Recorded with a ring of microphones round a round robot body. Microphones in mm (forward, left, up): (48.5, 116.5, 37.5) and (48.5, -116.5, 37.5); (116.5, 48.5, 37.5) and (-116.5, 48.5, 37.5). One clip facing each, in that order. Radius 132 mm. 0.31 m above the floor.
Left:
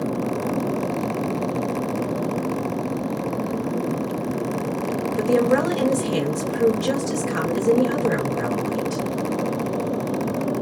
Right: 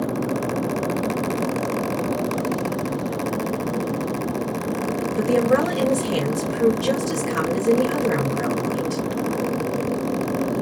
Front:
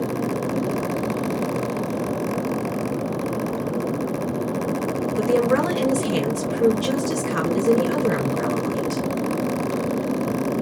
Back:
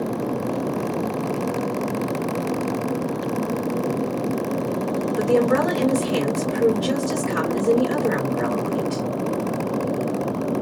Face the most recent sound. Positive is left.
turn(degrees=5)